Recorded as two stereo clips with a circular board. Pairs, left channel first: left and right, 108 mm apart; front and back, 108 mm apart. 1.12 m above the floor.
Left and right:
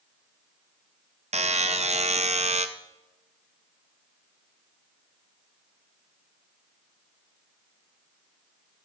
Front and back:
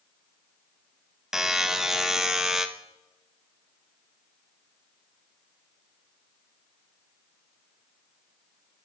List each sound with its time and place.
1.3 s a buzzer: 95° right, 0.6 m